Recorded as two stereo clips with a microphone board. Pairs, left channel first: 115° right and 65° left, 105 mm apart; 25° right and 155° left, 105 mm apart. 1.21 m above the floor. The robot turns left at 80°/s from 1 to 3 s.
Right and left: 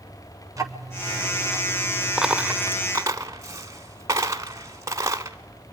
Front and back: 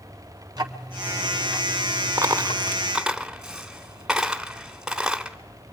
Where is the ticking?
120° left, 1.4 m; by 2.6 s 10° right, 1.4 m.